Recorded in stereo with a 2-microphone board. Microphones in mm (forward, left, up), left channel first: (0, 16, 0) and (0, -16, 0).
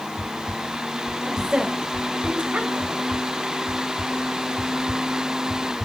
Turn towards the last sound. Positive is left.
turn(degrees=-50)  # may be behind; listen again after turning